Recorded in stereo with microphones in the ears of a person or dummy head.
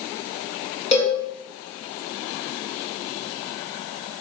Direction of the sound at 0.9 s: 40° left (ahead or behind).